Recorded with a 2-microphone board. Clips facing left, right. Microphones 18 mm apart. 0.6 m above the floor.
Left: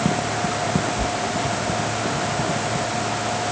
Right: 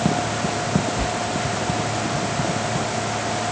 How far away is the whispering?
About 1.2 m.